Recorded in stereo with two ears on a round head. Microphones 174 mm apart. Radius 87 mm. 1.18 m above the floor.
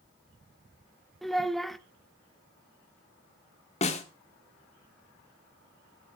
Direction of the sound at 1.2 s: Centre (ahead or behind).